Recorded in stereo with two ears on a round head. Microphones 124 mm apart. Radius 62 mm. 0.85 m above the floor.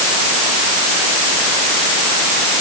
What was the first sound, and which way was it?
Only background noise.